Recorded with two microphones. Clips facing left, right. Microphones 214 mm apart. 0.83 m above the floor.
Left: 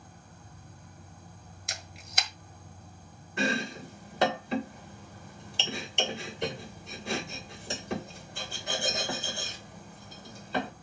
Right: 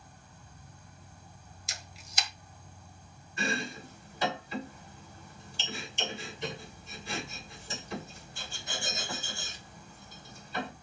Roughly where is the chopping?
Left.